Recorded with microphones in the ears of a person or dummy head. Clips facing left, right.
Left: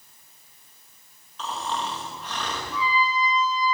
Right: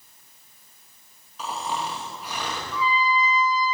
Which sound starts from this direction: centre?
Snoring, at 1.4 s.